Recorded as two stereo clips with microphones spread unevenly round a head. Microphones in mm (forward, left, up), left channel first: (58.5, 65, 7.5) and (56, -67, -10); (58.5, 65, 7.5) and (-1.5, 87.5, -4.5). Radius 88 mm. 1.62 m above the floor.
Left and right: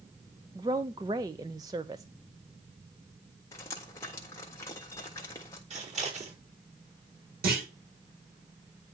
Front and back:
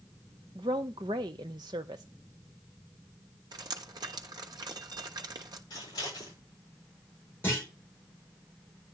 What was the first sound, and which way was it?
A woman speaking, 165° right.